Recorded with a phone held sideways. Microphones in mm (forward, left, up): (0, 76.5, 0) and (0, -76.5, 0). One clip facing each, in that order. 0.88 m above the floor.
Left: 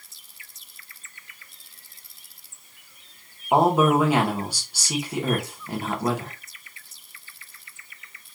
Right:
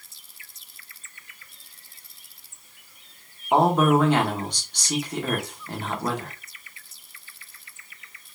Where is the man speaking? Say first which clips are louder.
Even; 10° left (ahead or behind), 1.0 m.